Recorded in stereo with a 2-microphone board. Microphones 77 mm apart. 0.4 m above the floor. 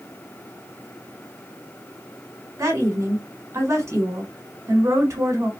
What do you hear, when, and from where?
2.6 s a woman speaking: 40° right (ahead or behind), 1.8 m